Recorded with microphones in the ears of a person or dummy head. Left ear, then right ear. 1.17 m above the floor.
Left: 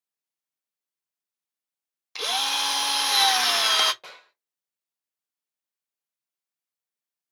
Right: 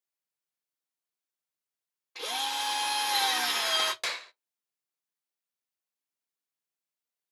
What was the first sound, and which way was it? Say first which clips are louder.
A drill: left 7 dB; 70° left (ahead or behind).